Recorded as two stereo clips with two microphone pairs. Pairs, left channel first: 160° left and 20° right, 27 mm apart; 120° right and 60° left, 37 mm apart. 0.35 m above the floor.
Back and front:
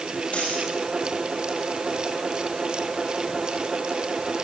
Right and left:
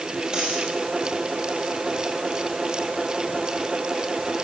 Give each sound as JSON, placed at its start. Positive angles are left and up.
{"t": 0.3, "sound": "a dropped coin", "azimuth_deg": 120, "distance_m": 4.5}